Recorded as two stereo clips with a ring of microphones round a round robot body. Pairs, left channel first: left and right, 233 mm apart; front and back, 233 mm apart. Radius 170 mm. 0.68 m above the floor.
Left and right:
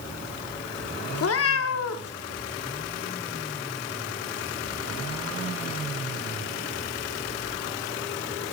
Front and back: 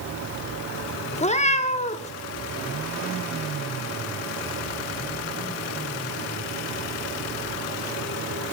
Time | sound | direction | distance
1.1 | a cat meowing | 65° left | 0.8 m